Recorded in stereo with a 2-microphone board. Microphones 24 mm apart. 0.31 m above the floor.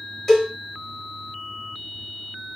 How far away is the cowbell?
About 1.7 m.